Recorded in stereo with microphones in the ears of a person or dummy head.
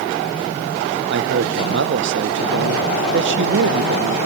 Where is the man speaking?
60° right (ahead or behind), 1.0 m.